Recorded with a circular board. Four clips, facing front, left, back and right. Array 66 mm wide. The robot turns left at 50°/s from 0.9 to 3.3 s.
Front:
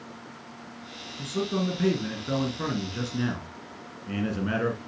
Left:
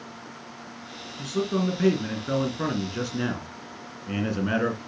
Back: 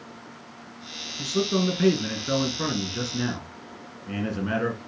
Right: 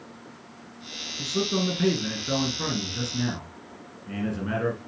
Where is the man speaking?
160° right, 1.6 m; by 4.8 s 90° left, 1.6 m.